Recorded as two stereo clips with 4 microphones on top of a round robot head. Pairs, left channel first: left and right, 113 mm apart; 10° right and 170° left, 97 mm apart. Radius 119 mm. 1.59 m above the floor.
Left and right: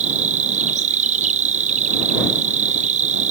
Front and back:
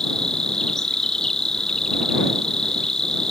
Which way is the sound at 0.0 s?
95° right.